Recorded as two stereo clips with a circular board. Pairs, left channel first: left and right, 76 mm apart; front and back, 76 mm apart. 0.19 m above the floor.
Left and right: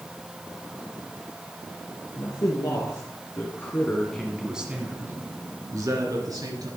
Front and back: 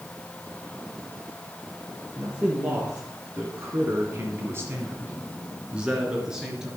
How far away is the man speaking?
About 3.5 m.